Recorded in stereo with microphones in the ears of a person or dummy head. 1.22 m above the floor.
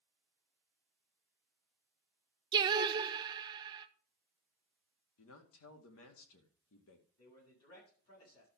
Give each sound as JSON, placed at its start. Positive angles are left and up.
{"t": 2.5, "sound": "singing", "side_deg": -20, "distance_m": 0.6}
{"t": 5.2, "sound": "a man speaking", "side_deg": 80, "distance_m": 2.0}
{"t": 7.2, "sound": "a man speaking", "side_deg": 80, "distance_m": 8.0}